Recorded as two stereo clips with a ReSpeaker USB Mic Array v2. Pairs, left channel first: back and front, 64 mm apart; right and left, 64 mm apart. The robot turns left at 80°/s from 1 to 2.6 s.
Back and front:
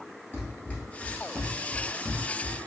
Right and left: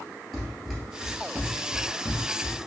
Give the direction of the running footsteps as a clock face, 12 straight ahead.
5 o'clock.